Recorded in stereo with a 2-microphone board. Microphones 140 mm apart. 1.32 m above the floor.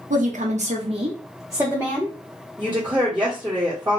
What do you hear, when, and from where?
0.1 s a woman speaking: 65° right (ahead or behind), 0.7 m; by 2.1 s 10° right (ahead or behind), 1.0 m
2.6 s a woman speaking: 15° right (ahead or behind), 1.0 m